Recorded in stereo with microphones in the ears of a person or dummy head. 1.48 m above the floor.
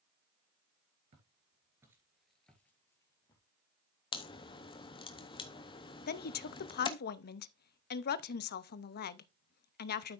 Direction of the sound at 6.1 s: 55° left (ahead or behind).